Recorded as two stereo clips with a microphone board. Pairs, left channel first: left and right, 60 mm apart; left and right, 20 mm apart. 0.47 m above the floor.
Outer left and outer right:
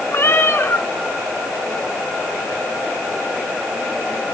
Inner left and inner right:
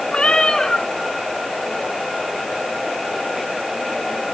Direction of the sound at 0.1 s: 50° left (ahead or behind).